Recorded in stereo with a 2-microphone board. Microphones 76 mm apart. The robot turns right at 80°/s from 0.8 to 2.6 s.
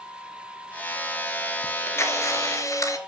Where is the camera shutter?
30° left, 2 m; by 3.0 s 105° left, 2 m.